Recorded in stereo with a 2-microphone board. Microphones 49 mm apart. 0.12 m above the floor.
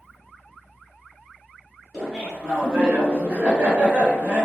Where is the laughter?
5° right (ahead or behind), 1.8 m; by 4.5 s 35° right (ahead or behind), 1.4 m.